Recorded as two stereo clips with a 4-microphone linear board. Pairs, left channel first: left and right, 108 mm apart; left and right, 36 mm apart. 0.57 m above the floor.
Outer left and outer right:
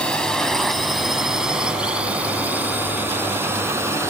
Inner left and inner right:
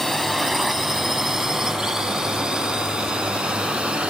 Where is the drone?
10° left (ahead or behind); by 4.1 s 25° right (ahead or behind).